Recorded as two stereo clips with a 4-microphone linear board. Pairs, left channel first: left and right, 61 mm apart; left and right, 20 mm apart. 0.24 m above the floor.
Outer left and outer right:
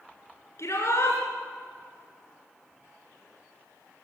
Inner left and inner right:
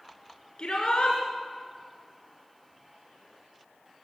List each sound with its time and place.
0.6 s a shout: 50° left (ahead or behind), 3 m